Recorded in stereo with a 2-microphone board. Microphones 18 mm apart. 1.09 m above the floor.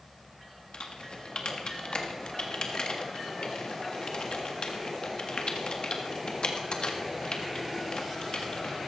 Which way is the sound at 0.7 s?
65° left (ahead or behind).